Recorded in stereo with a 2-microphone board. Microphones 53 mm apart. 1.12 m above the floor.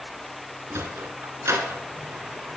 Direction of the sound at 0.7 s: 60° right (ahead or behind).